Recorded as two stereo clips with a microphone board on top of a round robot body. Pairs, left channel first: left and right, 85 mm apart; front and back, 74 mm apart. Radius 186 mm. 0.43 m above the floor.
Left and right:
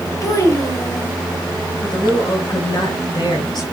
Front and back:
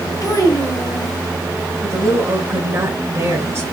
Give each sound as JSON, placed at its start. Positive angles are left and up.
{"t": 0.2, "sound": "a child speaking", "azimuth_deg": 40, "distance_m": 3.0}
{"t": 1.8, "sound": "a woman speaking", "azimuth_deg": 125, "distance_m": 5.5}